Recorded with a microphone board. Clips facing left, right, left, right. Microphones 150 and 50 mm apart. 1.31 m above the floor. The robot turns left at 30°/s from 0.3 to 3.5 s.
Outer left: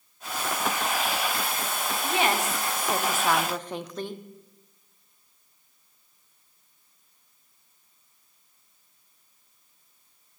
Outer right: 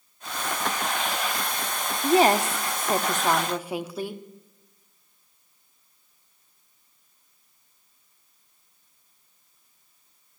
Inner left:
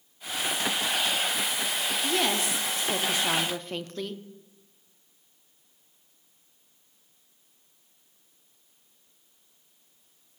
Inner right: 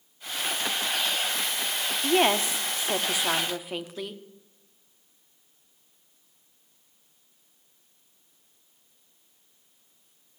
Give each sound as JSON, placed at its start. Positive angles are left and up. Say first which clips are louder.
{"t": 2.0, "sound": "a woman speaking", "louder": "outer right 8 dB, inner right 6 dB", "azimuth_deg": -125, "distance_m": 0.6}